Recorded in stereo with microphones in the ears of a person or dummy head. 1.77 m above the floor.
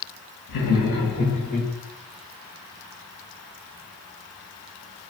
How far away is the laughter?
About 0.9 m.